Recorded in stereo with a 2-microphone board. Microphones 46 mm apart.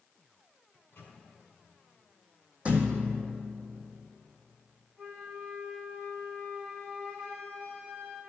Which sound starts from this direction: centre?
A flute, at 5.0 s.